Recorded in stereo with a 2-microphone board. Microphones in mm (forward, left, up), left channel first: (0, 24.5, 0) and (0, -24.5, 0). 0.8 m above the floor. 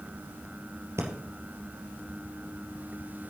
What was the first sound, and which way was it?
Breathing, 65° right (ahead or behind).